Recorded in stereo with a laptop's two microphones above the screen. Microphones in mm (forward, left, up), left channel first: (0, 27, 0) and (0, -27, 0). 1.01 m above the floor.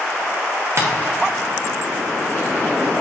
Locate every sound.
0.8 s tapping: 50° right (ahead or behind), 1.2 m